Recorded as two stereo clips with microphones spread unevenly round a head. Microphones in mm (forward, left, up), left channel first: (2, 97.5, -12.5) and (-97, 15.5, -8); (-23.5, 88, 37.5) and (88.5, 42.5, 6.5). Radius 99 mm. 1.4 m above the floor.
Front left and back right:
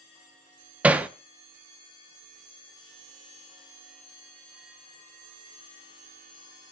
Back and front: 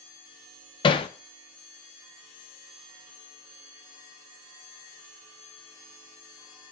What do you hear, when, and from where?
0.8 s hammering: 145° left, 0.6 m